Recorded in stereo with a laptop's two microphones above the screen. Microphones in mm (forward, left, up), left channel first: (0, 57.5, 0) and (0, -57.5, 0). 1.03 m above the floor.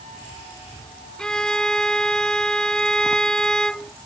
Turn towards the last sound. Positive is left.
turn(degrees=5)  # may be behind; listen again after turning